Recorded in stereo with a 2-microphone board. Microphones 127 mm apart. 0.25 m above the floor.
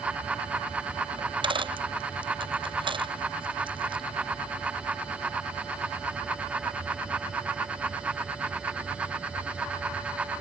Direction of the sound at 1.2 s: 40° right (ahead or behind).